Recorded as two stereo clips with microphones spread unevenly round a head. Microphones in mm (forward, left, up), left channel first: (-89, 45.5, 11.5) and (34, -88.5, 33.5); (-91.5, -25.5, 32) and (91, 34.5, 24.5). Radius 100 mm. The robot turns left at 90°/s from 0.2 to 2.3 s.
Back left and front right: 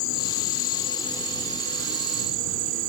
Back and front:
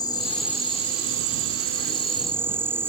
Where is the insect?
130° left; by 2.9 s 60° right.